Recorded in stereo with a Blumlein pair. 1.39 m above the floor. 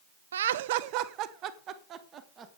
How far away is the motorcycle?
I don't hear a motorcycle.